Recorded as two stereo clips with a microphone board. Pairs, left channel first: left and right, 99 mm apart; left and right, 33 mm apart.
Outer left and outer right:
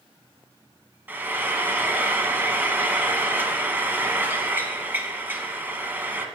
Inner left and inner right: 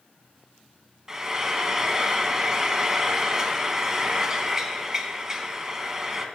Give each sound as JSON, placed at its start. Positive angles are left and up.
{"t": 1.1, "sound": "frying", "side_deg": -20, "distance_m": 0.8}